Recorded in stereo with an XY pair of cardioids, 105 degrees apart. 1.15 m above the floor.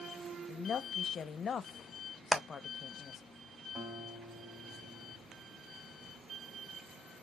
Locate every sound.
0.5 s a woman speaking: 45° left, 0.7 m
2.3 s hammering: 15° right, 1.1 m
3.8 s a guitar: 40° right, 3 m